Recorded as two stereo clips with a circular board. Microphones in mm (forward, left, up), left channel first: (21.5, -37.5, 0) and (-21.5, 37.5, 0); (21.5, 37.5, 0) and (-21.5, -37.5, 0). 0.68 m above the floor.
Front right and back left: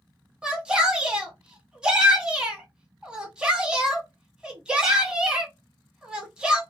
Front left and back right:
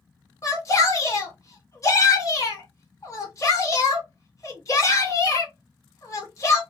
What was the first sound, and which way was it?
A shout, 50° left.